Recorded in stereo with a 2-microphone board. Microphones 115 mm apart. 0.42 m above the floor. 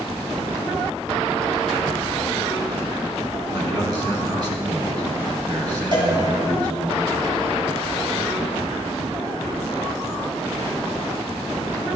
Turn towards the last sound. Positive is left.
turn(degrees=-45)  # may be behind; listen again after turning